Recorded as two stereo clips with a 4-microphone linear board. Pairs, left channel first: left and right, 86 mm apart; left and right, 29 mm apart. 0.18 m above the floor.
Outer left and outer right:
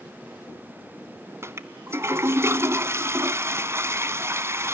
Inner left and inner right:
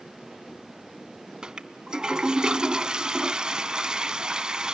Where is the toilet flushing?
30° right (ahead or behind), 0.7 m.